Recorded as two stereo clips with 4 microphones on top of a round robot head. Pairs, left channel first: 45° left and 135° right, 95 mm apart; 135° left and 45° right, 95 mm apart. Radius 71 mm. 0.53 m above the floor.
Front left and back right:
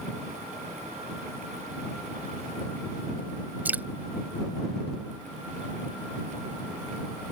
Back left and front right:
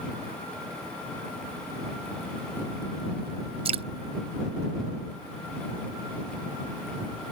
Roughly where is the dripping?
Ahead right.